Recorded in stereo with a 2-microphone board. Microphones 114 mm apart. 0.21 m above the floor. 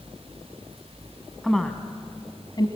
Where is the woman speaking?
Centre (ahead or behind), 1.5 m; by 2.7 s 40° left (ahead or behind), 1.4 m.